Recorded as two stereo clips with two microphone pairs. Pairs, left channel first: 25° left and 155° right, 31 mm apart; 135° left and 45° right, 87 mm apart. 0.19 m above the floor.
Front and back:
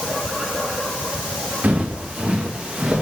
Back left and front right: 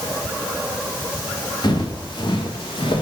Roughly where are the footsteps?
Behind.